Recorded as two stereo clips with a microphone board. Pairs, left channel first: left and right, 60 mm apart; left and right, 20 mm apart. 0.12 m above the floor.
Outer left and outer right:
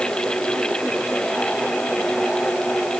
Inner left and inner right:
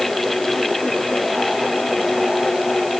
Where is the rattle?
I don't hear a rattle.